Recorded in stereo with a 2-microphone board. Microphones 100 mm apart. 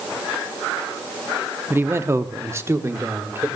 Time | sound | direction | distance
1.7 | a man speaking | 20° right (ahead or behind) | 0.7 m